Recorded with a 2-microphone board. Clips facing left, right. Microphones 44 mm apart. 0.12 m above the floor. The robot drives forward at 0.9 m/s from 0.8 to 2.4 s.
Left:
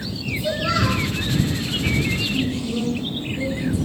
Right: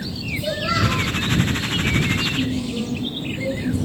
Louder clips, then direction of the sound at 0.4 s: Even; 5° right (ahead or behind).